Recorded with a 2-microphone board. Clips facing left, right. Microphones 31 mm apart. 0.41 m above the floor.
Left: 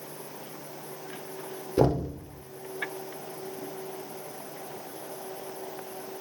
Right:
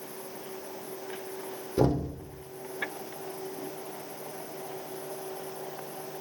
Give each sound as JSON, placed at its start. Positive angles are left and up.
{"t": 1.8, "sound": "knocking", "side_deg": 25, "distance_m": 0.6}